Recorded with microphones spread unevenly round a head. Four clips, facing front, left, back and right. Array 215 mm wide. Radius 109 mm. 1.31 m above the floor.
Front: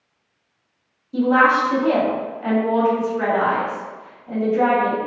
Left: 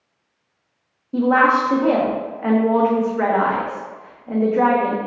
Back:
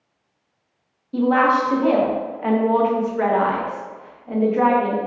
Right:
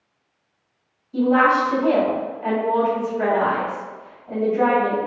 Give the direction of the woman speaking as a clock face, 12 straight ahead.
9 o'clock.